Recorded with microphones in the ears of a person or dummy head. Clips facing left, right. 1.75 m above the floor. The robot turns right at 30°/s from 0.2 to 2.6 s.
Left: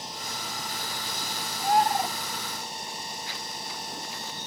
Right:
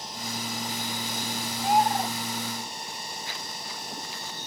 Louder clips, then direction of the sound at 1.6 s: Even; centre (ahead or behind).